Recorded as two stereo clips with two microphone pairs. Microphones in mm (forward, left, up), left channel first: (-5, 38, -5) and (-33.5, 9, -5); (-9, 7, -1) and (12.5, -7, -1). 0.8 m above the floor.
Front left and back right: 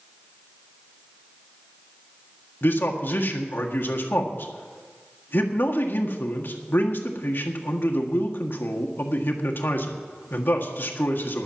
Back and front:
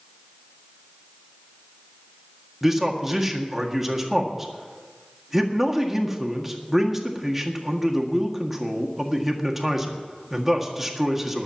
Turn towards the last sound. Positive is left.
turn(degrees=45)